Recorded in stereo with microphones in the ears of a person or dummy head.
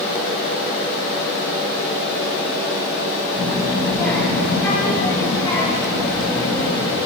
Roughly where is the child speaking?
Centre.